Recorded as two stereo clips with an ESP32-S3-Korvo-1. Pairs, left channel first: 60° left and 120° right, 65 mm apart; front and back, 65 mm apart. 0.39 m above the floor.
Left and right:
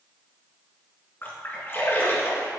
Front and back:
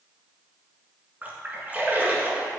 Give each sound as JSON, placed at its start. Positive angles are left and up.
{"t": 1.2, "sound": "a splash", "azimuth_deg": 115, "distance_m": 1.5}